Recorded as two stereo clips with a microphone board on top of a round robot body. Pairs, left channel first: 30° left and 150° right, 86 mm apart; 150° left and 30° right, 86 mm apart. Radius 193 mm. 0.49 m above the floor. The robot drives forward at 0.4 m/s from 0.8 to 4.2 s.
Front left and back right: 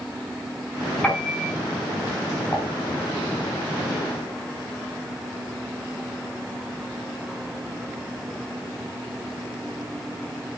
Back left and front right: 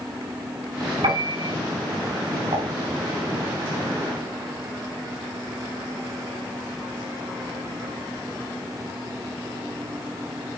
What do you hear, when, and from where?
1.0 s a piano: 50° right, 3.5 m
2.5 s dishes clattering: 20° right, 4 m